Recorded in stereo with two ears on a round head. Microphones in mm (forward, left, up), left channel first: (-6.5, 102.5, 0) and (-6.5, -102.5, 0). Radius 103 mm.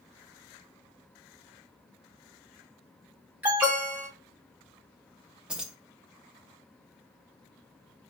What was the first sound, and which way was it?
An alarm, 5° right (ahead or behind).